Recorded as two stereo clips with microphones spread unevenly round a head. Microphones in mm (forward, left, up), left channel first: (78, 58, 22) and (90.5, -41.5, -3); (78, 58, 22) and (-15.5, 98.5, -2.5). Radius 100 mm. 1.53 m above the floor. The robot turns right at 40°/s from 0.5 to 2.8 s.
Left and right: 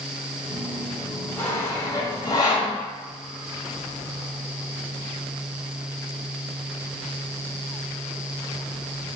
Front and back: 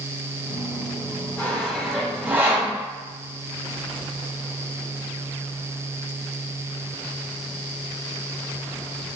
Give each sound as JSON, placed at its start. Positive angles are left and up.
{"t": 1.4, "sound": "sawing", "azimuth_deg": 40, "distance_m": 1.7}